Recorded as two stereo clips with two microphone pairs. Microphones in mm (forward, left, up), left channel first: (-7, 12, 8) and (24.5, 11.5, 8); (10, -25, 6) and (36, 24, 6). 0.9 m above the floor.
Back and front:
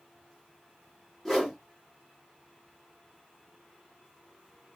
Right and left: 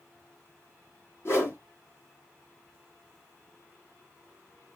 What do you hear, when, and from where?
1.2 s a whoosh: 95° right, 1.2 m